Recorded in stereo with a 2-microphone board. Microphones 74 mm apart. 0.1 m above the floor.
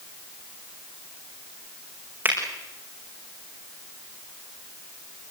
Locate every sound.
2.2 s a finger snap: 25° right (ahead or behind), 6.5 m